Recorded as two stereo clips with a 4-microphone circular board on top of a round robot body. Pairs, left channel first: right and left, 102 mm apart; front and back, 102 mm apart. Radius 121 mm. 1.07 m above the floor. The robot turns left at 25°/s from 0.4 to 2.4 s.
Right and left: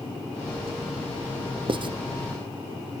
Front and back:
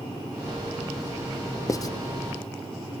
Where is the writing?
55° left, 0.7 m; by 1.9 s 50° left, 0.7 m.